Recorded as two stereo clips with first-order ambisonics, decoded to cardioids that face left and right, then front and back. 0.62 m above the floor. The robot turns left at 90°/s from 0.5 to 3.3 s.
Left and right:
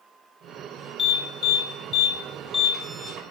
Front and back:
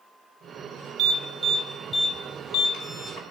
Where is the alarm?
145° left, 1.6 m; by 3.2 s 55° right, 1.6 m.